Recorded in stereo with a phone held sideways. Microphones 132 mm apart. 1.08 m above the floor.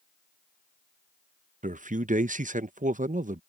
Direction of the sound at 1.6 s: 75° right (ahead or behind).